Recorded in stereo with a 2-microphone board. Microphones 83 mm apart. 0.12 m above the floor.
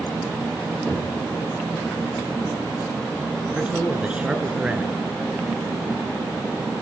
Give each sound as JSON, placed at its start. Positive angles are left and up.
{"t": 0.9, "sound": "knocking", "side_deg": 0, "distance_m": 5.5}
{"t": 3.5, "sound": "a man speaking", "side_deg": -15, "distance_m": 1.9}